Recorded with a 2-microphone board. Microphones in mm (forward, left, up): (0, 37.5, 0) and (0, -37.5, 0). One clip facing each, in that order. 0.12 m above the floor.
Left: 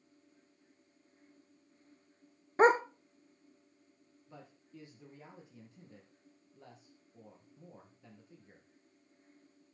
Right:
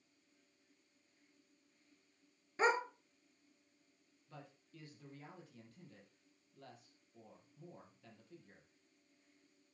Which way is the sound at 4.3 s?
20° left (ahead or behind).